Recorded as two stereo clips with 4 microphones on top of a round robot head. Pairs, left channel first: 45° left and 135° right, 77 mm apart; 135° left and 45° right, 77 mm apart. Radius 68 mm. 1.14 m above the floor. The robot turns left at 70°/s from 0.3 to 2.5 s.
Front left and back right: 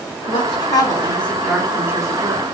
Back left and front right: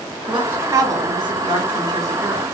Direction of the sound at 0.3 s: 35° left.